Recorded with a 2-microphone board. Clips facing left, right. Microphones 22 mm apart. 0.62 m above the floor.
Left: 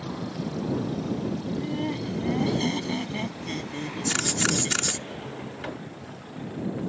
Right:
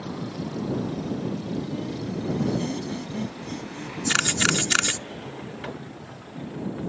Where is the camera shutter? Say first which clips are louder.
Right 4 dB; 25° right (ahead or behind).